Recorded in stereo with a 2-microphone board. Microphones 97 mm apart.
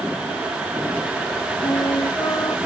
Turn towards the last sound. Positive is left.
turn(degrees=45)  # may be behind; listen again after turning